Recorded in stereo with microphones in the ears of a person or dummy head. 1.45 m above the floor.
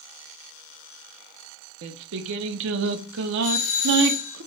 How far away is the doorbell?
About 1.0 m.